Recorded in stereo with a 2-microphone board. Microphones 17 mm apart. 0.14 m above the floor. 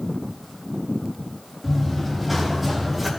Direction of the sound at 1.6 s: Centre (ahead or behind).